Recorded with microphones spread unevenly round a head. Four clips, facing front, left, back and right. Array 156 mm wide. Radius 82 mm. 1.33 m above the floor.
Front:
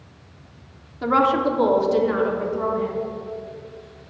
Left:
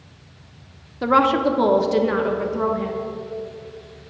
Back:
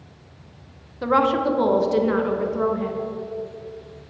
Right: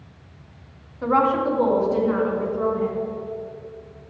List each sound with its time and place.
1.0 s a woman speaking: 90° left, 1.3 m; by 2.9 s 120° left, 2 m